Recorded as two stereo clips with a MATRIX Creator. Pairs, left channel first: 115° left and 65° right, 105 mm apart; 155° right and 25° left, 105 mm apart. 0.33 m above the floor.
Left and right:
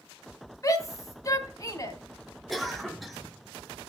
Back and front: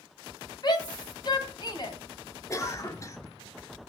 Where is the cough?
160° right, 1.1 m.